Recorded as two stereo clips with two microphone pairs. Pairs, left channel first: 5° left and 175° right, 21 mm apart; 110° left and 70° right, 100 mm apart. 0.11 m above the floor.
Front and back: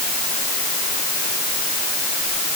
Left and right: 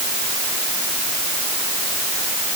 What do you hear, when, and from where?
Only background noise.